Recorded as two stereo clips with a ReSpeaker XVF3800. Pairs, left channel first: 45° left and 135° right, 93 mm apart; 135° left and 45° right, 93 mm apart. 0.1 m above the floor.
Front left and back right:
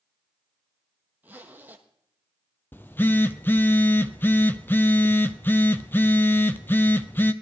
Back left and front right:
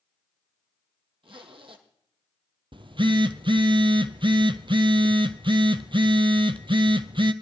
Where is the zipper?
65° right, 1.4 m.